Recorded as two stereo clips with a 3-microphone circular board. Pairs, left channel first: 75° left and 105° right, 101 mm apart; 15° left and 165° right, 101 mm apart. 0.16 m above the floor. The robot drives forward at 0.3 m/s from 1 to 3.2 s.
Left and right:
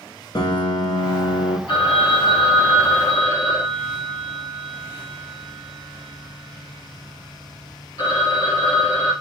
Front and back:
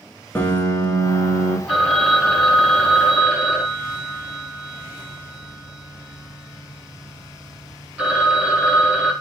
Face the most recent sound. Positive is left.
turn(degrees=115)